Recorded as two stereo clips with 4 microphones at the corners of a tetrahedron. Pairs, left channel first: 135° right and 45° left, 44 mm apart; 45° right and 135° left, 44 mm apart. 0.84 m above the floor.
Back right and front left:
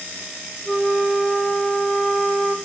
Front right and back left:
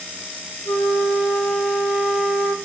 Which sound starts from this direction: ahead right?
A flute, at 0.7 s.